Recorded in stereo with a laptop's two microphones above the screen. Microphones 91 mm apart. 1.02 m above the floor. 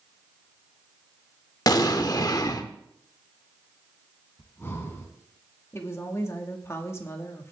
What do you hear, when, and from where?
1.7 s an explosion: 45° left (ahead or behind), 0.8 m
4.4 s breathing: 30° left (ahead or behind), 2.5 m
5.7 s a woman speaking: 30° left (ahead or behind), 1.9 m